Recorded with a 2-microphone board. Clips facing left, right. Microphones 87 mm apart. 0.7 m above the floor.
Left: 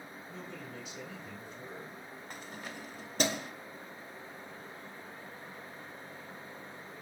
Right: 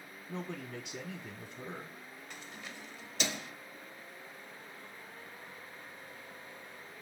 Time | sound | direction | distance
0.3 | a man speaking | 70° right (ahead or behind) | 1.4 m
2.3 | keys jangling | 45° left (ahead or behind) | 0.9 m